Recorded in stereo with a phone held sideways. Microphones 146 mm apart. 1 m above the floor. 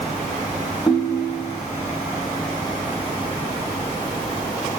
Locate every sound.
0.9 s a ringtone: 30° left (ahead or behind), 0.8 m